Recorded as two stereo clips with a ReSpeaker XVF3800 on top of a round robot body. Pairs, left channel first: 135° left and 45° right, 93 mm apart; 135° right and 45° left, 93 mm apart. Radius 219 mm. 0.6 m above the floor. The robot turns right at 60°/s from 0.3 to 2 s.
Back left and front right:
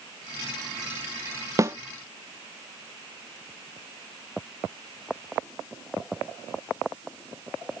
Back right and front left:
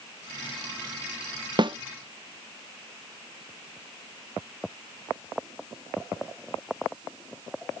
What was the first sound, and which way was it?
A snare drum, 10° left.